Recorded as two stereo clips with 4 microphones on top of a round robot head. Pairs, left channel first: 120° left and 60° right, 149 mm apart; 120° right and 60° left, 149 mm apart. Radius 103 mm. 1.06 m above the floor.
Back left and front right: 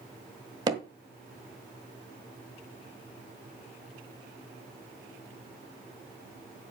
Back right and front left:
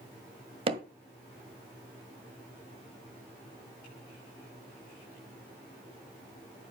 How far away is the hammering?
About 1.6 m.